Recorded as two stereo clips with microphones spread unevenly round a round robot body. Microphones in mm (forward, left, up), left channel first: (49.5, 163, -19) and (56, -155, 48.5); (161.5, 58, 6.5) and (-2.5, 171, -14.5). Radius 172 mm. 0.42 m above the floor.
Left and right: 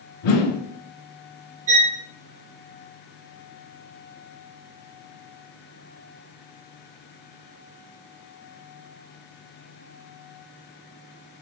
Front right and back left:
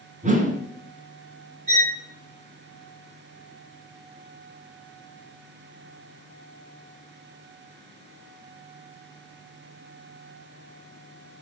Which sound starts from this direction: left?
A whoosh, at 0.2 s.